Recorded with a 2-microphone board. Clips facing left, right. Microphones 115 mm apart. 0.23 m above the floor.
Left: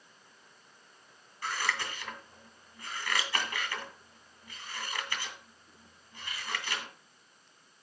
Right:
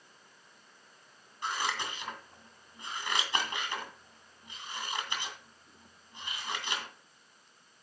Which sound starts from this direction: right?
Scissors, at 1.4 s.